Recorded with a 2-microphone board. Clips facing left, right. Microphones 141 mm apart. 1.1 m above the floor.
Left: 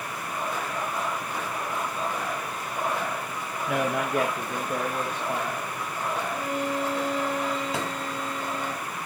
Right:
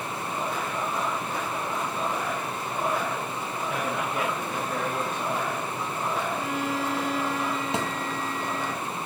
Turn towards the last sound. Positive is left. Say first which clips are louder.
# right 2 dB
turn(degrees=-25)  # may be behind; listen again after turning